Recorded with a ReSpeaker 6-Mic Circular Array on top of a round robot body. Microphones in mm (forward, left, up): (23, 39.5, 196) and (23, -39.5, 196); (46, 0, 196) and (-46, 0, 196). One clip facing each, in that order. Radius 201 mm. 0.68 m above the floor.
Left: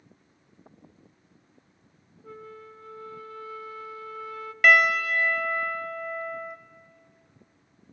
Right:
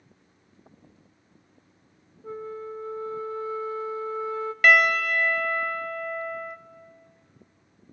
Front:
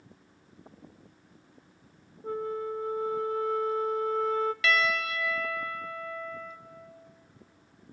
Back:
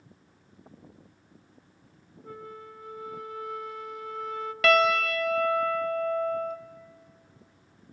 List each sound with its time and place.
2.2 s a flute: 35° right, 0.8 m
4.6 s a piano: straight behind, 0.9 m